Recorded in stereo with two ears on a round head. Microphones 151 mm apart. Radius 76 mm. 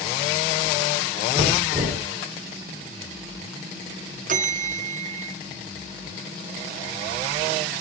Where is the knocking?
25° right (ahead or behind), 4.5 m.